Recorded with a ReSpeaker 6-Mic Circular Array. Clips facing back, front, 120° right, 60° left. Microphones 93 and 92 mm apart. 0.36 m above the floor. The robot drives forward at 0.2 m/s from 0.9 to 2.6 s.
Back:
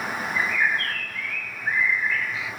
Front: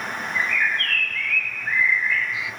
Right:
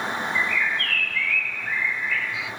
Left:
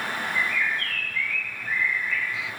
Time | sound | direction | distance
0.3 | a bird | 110° right | 0.6 m